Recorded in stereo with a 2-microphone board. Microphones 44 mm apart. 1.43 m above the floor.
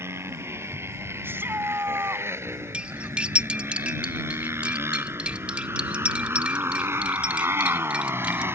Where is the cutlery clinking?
25° right (ahead or behind).